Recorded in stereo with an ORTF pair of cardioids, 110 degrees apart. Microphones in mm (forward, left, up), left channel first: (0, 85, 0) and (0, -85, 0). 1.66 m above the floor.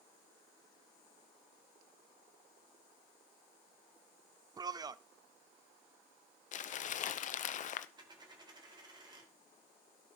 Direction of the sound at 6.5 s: 45° left.